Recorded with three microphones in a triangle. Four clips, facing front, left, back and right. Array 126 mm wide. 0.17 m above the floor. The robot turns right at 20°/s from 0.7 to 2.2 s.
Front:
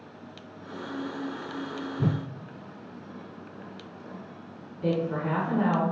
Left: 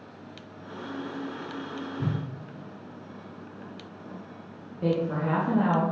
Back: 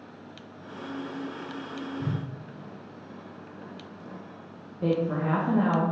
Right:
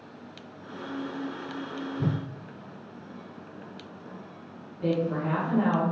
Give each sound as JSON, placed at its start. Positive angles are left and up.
{"t": 2.0, "sound": "a whoosh", "azimuth_deg": -25, "distance_m": 0.7}
{"t": 4.8, "sound": "a woman speaking", "azimuth_deg": 150, "distance_m": 3.5}